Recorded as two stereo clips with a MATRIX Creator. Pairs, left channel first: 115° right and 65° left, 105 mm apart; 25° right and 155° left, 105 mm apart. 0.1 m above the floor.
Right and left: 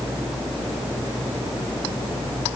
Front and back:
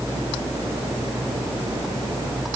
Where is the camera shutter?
No camera shutter in this recording.